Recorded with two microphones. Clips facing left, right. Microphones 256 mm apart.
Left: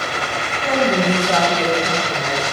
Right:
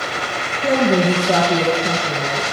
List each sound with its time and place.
0.6 s a woman speaking: 45° right (ahead or behind), 1.6 m